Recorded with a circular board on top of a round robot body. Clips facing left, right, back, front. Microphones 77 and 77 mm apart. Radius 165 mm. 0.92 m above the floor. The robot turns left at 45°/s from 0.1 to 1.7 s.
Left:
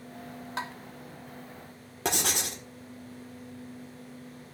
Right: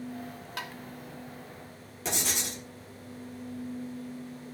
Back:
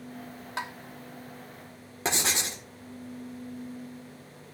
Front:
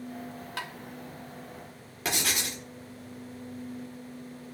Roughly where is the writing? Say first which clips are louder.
Left 3 dB, back 2 dB; behind left.